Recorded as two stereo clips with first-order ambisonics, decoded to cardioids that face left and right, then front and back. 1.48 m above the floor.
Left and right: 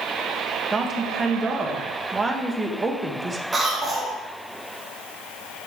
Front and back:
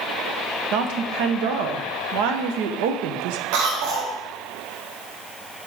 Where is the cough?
170° right, 1.5 m.